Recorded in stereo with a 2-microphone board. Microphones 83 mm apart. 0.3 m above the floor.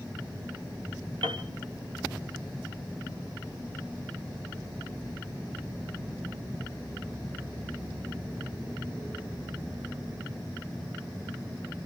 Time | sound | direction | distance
1.2 | a piano | 70° right (ahead or behind) | 3 m